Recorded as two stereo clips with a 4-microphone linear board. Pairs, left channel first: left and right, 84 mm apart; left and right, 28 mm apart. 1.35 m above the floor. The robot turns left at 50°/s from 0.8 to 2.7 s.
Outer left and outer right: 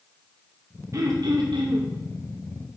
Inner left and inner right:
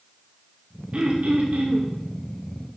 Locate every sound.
0.9 s throat clearing: 40° right, 1.9 m; by 1.9 s 85° right, 1.9 m